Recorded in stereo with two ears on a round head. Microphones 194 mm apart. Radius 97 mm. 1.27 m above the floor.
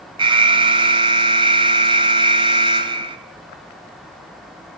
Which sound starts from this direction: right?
An alarm, at 0.2 s.